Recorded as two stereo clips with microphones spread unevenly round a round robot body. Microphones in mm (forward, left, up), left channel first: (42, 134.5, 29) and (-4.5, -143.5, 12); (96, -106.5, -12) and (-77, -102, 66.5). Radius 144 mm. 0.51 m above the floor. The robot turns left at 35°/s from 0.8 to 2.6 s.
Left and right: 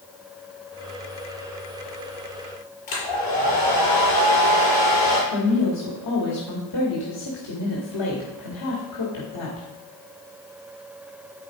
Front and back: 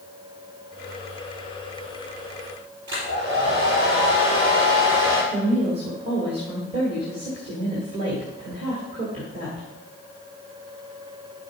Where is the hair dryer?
80° left, 5.5 m.